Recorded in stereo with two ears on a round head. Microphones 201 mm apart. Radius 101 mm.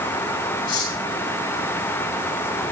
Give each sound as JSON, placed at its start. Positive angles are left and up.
{"t": 0.7, "sound": "cutlery clinking", "side_deg": 70, "distance_m": 5.0}